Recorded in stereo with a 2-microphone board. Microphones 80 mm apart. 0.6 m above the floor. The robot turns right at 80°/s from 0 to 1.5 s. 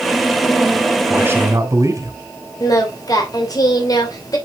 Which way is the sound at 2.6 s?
50° left (ahead or behind).